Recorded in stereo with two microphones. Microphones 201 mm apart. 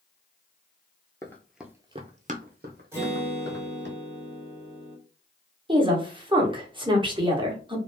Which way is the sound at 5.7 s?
25° right (ahead or behind).